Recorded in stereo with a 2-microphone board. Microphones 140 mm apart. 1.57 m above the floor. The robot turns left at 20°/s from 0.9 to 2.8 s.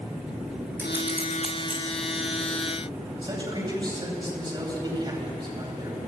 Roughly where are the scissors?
Centre.